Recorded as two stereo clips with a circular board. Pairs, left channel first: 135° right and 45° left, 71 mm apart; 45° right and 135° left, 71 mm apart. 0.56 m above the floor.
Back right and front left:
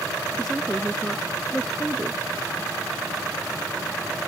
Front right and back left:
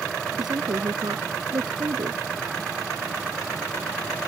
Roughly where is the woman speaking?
Behind left.